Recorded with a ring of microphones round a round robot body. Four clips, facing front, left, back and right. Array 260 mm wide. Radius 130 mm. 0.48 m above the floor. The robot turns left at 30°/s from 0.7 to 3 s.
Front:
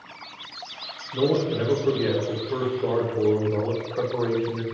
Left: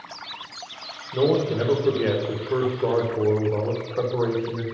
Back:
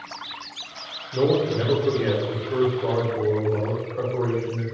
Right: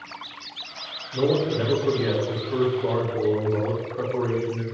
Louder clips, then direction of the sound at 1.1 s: Left 1 dB, back 2 dB; 125° left.